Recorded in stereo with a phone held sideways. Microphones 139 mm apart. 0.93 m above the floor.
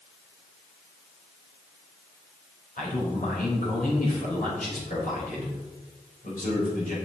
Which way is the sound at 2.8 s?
75° left (ahead or behind).